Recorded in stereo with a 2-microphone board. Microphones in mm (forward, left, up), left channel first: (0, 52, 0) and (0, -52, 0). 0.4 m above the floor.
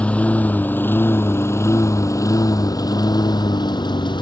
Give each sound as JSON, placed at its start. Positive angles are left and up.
{"t": 0.0, "sound": "a lawn mower", "side_deg": 15}